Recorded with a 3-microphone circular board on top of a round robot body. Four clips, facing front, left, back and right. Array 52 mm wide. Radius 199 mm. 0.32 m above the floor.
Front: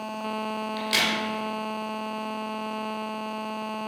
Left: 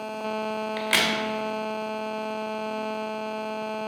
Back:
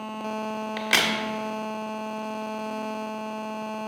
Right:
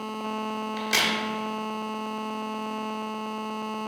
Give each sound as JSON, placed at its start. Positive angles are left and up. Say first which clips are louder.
{"t": 0.8, "sound": "a crack", "louder": "left 2 dB, back 3 dB", "azimuth_deg": 155, "distance_m": 1.3}